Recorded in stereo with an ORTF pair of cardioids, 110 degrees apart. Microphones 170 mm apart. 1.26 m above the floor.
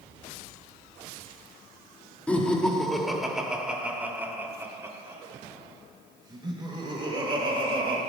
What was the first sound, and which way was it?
Laughter, 10° left.